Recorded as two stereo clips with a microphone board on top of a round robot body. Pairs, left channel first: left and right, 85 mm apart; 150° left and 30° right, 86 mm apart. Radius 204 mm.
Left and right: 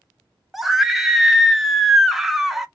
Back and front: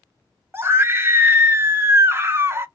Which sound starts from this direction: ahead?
A scream, at 0.5 s.